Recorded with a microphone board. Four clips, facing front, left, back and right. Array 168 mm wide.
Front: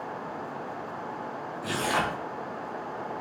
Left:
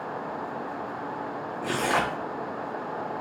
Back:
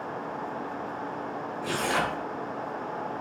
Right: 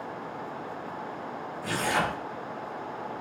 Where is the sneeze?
I don't hear a sneeze.